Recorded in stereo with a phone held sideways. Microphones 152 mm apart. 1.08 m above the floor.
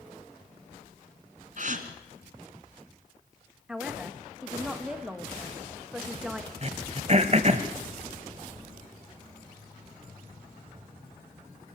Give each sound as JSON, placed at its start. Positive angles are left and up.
{"t": 1.6, "sound": "a gasp", "side_deg": -55, "distance_m": 1.7}
{"t": 3.7, "sound": "a man speaking", "side_deg": -5, "distance_m": 1.6}
{"t": 6.6, "sound": "throat clearing", "side_deg": -45, "distance_m": 1.1}